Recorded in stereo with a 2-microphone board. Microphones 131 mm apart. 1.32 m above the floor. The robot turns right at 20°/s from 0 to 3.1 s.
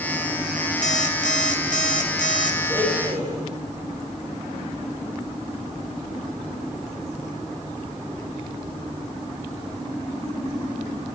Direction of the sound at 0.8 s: 70° left.